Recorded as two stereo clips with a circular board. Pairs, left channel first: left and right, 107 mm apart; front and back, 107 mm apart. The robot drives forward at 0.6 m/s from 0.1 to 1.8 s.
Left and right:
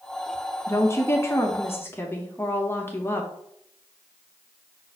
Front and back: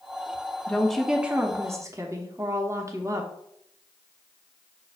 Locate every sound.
0.7 s a woman speaking: 65° left, 0.9 m; by 3.3 s 145° left, 1.1 m